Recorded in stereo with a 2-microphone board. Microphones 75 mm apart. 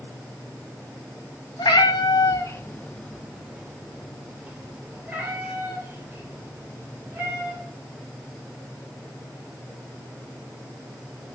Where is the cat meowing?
85° left, 0.8 m; by 7.6 s 35° right (ahead or behind), 3.5 m.